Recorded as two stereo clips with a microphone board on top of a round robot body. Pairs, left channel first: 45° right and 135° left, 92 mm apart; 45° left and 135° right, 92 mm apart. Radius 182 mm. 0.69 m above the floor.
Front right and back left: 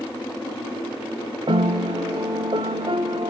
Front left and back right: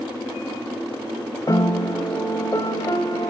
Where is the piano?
100° left, 1.3 m.